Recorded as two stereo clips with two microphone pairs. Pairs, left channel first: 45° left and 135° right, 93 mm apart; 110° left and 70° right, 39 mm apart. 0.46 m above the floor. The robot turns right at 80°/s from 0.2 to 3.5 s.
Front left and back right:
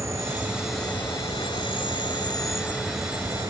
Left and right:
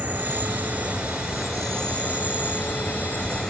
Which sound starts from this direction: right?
An insect, at 0.0 s.